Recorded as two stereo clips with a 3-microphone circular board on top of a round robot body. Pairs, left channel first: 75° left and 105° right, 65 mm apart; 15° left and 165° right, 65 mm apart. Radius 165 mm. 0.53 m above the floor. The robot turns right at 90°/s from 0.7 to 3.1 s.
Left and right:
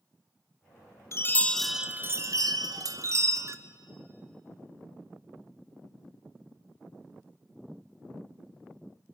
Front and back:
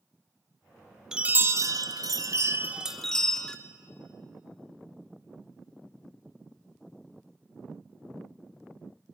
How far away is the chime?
About 0.9 m.